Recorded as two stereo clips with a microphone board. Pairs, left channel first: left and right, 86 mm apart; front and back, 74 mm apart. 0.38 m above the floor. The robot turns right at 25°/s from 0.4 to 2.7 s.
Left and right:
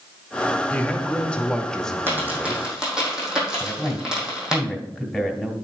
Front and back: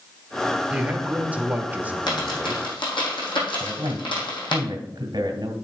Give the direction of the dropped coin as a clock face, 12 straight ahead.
1 o'clock.